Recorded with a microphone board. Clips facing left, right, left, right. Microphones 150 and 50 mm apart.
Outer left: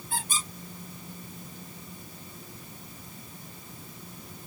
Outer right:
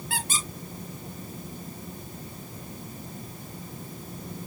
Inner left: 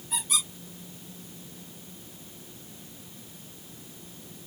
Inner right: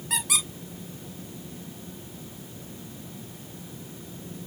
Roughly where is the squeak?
Right.